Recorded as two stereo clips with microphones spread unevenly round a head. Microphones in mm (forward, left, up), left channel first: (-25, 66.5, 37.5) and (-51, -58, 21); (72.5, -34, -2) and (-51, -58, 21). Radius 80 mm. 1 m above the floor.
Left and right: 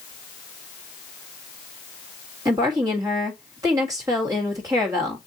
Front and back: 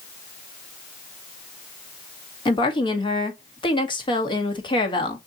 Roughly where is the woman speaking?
Ahead right.